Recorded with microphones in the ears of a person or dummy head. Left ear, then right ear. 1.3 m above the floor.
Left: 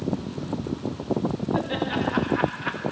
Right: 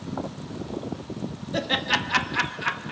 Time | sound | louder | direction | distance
1.5 | laughter | right 5 dB | 55° right (ahead or behind) | 2 m